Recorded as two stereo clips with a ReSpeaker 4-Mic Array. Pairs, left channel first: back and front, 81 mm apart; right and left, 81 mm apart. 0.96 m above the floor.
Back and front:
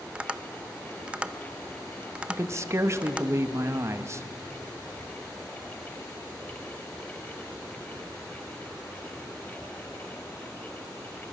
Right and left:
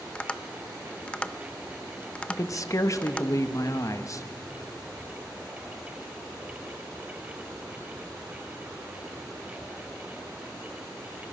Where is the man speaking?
50° right, 1.1 m.